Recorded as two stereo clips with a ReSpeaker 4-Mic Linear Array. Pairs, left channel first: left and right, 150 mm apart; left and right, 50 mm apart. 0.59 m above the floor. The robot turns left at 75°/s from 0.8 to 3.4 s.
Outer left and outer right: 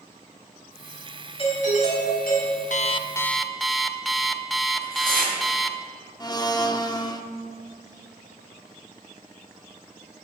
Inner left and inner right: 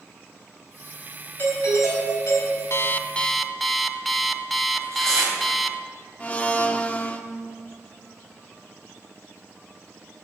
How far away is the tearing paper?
About 3.5 m.